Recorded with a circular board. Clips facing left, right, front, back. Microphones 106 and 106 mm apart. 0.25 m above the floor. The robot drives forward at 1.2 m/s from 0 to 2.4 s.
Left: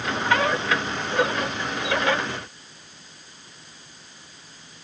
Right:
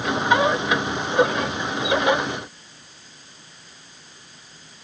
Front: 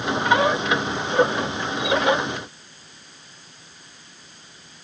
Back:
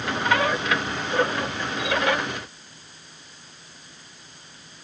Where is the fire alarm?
No fire alarm in this recording.